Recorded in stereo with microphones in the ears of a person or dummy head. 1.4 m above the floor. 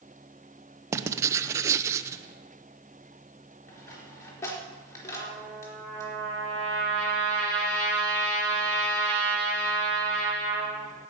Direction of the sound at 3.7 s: 15° left (ahead or behind).